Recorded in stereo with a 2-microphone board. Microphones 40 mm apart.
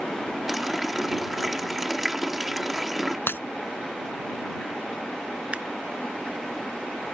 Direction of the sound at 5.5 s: 30° right (ahead or behind).